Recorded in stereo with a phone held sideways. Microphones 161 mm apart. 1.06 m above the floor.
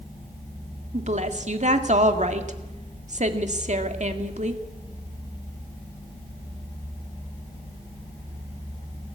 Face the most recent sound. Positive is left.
turn(degrees=-45)  # may be behind; listen again after turning